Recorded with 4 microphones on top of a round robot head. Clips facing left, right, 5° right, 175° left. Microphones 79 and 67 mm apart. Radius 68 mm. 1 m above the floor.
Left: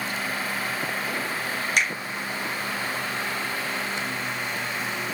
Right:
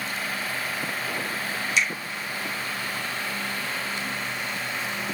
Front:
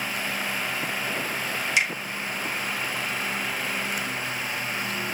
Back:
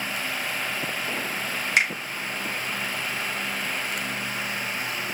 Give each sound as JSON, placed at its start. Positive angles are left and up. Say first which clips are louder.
{"t": 1.8, "sound": "a finger snap", "louder": "even, back 2 dB", "azimuth_deg": 130, "distance_m": 3.5}